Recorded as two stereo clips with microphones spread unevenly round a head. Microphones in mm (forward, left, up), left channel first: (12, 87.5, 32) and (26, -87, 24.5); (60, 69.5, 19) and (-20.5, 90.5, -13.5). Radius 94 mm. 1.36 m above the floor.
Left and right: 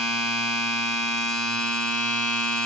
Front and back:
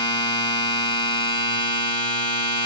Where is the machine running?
5° left, 0.9 m.